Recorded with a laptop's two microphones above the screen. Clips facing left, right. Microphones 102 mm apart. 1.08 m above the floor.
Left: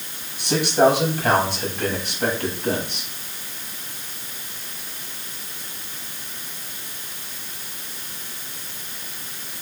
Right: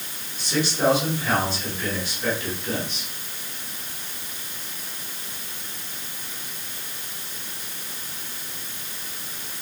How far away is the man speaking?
About 9 m.